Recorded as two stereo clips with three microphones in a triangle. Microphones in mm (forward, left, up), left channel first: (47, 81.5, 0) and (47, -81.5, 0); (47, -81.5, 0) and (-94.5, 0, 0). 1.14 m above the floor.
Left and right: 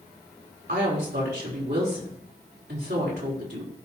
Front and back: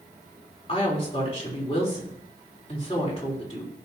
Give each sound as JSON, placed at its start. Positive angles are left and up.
{"t": 0.7, "sound": "a woman speaking", "azimuth_deg": -80, "distance_m": 4.0}